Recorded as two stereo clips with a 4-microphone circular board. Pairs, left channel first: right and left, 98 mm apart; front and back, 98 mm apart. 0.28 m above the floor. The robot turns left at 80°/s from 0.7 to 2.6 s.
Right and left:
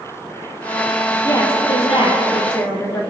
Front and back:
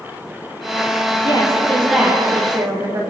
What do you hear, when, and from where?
1.2 s a woman speaking: 35° right, 7.5 m; by 3.0 s 140° right, 7.5 m